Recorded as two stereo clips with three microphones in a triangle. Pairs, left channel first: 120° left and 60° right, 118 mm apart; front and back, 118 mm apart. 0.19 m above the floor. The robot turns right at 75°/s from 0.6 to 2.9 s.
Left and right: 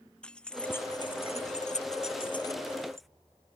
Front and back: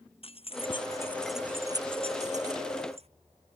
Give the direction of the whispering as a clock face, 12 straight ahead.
I don't hear whispering.